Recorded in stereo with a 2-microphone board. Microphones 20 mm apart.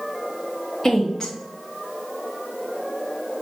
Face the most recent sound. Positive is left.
turn(degrees=15)  # may be behind; listen again after turning